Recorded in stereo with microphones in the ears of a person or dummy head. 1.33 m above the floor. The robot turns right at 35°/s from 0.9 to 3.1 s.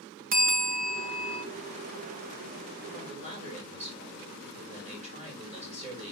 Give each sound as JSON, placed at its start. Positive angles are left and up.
{"t": 0.3, "sound": "a bell", "side_deg": -50, "distance_m": 1.0}
{"t": 2.9, "sound": "a man speaking", "side_deg": -40, "distance_m": 4.5}